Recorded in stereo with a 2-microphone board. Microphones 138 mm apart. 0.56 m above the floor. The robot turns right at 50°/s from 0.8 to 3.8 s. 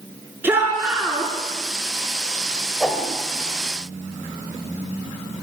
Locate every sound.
0.4 s a shout: 15° right (ahead or behind), 9 m; by 1.3 s 10° left (ahead or behind), 9 m
2.8 s a whoosh: 5° left (ahead or behind), 2.5 m; by 3.1 s 10° right (ahead or behind), 2.5 m